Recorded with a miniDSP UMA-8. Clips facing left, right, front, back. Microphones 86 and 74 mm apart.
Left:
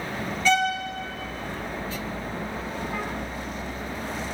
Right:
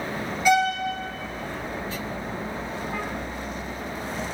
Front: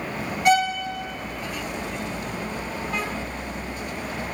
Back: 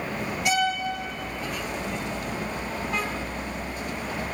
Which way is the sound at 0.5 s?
20° right.